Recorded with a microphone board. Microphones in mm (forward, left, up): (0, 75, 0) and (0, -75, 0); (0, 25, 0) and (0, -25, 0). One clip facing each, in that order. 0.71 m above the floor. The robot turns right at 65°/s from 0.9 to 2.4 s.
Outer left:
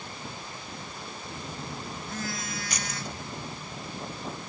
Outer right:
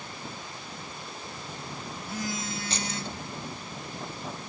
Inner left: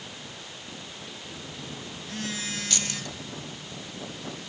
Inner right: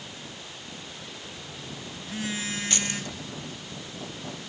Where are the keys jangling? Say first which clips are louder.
Outer right 2 dB, inner right 2 dB; 30° right (ahead or behind), 0.5 m.